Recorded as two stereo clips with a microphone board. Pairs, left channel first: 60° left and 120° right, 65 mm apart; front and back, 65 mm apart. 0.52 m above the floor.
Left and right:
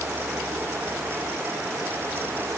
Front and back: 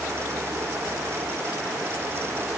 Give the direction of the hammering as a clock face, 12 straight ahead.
No hammering in this recording.